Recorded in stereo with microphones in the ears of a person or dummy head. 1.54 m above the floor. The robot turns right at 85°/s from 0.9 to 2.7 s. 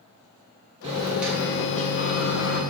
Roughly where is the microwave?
Ahead right.